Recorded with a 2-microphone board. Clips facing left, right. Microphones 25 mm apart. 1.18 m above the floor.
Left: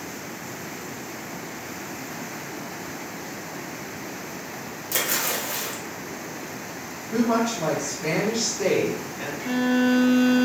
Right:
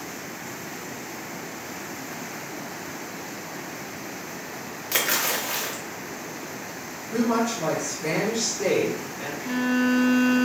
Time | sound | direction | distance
4.9 | a splash | 35° right (ahead or behind) | 0.5 m
7.1 | a woman speaking | 45° left (ahead or behind) | 1.4 m
9.4 | a violin | 60° left (ahead or behind) | 0.7 m